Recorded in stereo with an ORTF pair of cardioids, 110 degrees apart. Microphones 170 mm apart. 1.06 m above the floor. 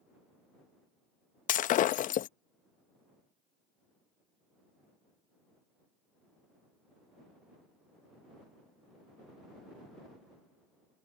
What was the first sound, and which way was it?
Breaking glass, 55° left.